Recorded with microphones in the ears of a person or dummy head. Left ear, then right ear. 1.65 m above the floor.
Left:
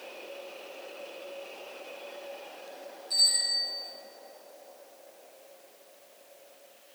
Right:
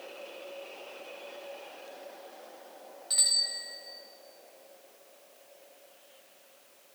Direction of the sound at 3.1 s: 60° right (ahead or behind).